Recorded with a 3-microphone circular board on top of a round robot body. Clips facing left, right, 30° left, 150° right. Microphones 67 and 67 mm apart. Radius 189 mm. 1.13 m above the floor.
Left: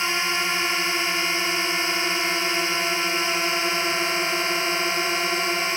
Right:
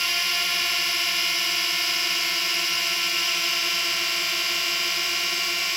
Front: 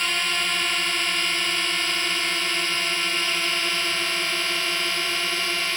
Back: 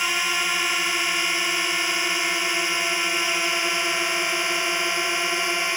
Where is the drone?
140° left; by 5.8 s 145° left.